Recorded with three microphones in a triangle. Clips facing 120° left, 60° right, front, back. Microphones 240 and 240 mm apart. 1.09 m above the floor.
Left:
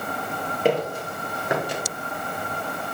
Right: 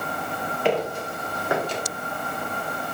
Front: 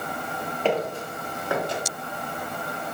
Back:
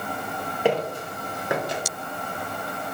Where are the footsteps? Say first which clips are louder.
Left 2 dB, back 2 dB; 105° left, 1.5 m; by 1.8 s 170° right, 1.1 m.